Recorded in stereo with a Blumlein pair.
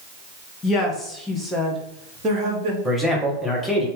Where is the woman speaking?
20° left, 1.0 m; by 2.8 s 40° right, 1.2 m.